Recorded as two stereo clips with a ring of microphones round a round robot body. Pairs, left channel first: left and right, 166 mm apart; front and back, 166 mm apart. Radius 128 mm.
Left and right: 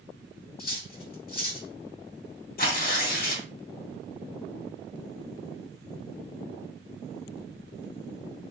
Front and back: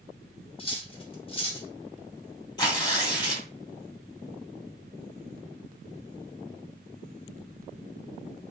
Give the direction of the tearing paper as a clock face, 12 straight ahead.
10 o'clock.